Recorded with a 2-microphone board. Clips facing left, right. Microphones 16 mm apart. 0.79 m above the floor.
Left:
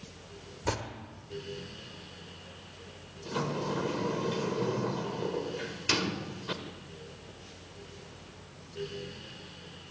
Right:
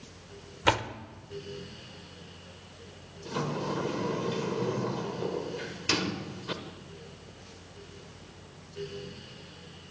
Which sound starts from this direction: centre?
A sliding door, at 3.2 s.